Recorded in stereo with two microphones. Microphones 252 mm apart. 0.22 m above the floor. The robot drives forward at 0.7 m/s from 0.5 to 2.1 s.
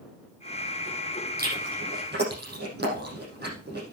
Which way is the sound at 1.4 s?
40° right (ahead or behind).